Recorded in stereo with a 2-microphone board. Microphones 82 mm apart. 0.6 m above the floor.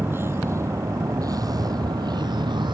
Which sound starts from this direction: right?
A vehicle, at 0.0 s.